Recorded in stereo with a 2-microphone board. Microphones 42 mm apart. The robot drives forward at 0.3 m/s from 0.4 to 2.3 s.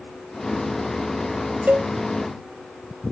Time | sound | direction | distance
1.7 | a cowbell | 50° right (ahead or behind) | ?